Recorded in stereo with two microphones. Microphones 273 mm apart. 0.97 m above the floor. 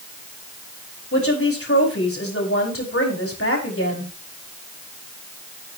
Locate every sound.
1.1 s a woman speaking: 50° left (ahead or behind), 5 m